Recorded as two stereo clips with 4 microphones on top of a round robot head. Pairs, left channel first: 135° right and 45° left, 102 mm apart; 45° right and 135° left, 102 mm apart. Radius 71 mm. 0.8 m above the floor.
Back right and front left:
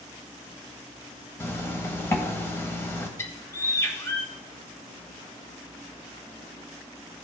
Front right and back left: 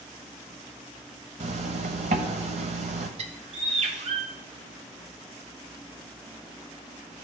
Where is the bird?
160° left, 1.2 m.